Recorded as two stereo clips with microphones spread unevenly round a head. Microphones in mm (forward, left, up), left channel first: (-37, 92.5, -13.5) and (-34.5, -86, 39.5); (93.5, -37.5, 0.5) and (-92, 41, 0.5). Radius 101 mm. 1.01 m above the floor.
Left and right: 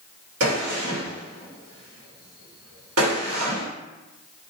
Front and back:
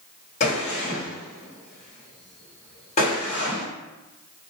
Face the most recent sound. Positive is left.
turn(degrees=-85)